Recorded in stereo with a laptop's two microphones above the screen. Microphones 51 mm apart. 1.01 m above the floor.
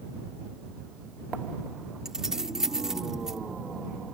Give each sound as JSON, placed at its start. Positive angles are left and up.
{"t": 2.0, "sound": "keys jangling", "side_deg": -10}